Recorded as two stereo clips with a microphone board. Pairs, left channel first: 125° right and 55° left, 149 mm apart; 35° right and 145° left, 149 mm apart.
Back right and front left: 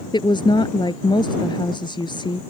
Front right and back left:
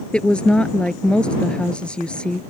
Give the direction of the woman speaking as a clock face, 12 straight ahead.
4 o'clock.